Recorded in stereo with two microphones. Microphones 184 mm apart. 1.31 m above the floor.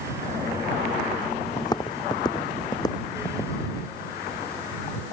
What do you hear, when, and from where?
1.6 s footsteps: 20° left (ahead or behind)